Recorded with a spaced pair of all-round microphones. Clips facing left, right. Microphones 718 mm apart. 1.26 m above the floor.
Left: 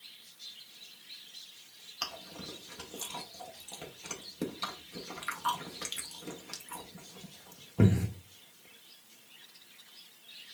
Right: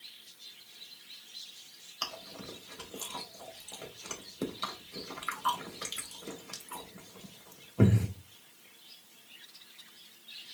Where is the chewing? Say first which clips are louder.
Even; 30° left (ahead or behind), 0.9 m.